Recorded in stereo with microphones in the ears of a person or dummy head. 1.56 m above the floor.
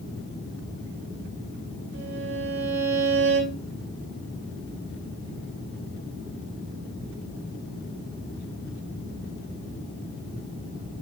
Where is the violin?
50° right (ahead or behind), 3 m.